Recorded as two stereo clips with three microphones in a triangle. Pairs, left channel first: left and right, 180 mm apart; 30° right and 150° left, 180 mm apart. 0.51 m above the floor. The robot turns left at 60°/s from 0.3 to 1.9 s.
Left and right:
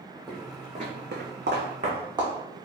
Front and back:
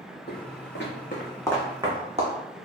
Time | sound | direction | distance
0.3 | footsteps | straight ahead | 1.7 m